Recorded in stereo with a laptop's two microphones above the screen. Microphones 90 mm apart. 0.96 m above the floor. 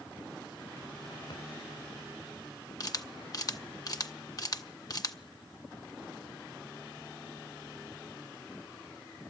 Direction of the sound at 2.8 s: 45° left (ahead or behind).